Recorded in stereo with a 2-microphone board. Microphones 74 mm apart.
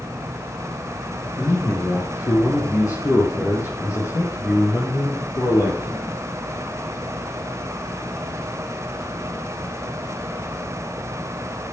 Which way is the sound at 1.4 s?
50° left (ahead or behind).